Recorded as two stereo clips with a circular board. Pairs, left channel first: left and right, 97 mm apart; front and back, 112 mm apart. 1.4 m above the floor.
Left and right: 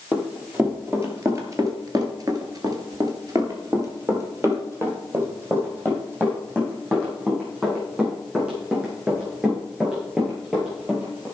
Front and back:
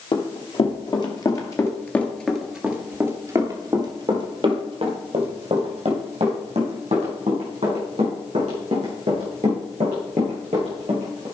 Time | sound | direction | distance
0.1 | running footsteps | 25° right | 3 m